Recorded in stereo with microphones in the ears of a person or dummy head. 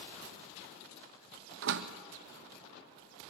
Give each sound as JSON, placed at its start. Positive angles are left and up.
{"t": 1.6, "sound": "a door slam", "side_deg": -65, "distance_m": 1.1}